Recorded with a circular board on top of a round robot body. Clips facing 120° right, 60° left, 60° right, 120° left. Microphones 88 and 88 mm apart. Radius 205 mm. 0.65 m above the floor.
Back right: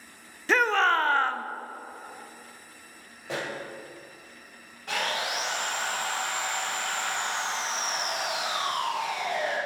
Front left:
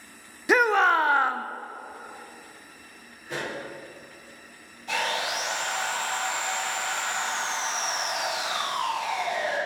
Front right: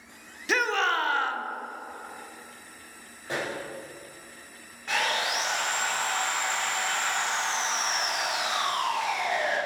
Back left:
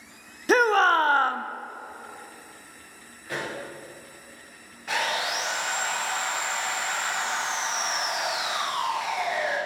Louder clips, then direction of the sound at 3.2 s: Even, front right 1 dB; 125° right.